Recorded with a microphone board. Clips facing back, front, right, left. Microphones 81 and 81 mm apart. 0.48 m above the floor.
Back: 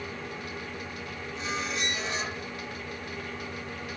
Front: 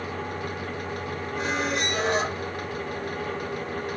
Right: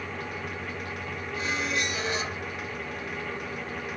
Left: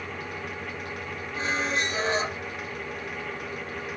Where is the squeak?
35° left, 0.9 m.